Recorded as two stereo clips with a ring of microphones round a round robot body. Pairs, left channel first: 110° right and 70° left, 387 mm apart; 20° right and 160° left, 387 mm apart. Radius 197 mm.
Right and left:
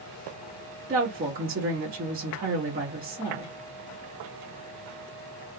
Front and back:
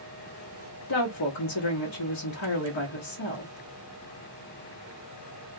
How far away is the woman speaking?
About 1.3 m.